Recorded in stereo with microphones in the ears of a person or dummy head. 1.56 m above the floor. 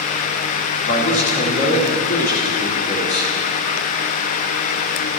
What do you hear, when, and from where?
0.8 s a man speaking: 60° left (ahead or behind), 3.5 m